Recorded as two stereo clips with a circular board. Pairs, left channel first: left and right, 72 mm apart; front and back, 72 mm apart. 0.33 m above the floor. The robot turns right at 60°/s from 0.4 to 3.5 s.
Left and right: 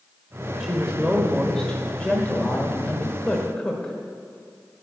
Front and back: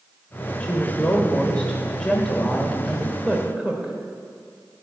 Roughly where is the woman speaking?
Ahead right.